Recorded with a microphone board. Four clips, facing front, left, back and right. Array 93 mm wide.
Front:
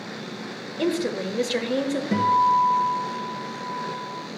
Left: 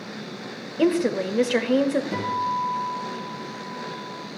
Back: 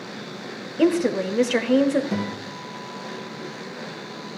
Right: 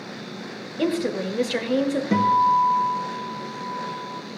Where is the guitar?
70° right, 3.5 m.